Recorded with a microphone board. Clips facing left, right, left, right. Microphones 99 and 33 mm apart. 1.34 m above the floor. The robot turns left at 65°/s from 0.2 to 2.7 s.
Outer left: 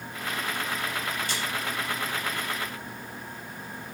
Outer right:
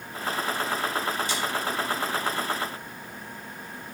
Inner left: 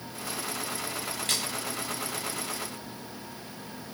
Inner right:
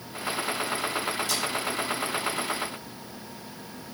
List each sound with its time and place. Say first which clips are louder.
1.3 s a splash: outer right 3 dB, inner right 1 dB; 55° left (ahead or behind), 7 m; by 1.4 s 45° left (ahead or behind), 7 m